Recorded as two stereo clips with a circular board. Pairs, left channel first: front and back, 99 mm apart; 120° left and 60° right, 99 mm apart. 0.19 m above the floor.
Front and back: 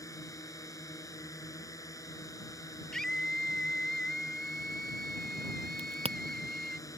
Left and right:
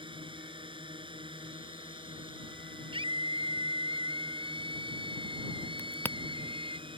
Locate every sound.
0.0 s a drone: 50° right
2.9 s a scream: 85° right
5.8 s a crack: 170° right